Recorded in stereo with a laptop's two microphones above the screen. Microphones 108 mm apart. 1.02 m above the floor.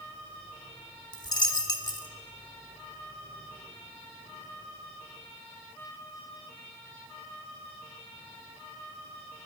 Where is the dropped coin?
40° left (ahead or behind), 1.0 m.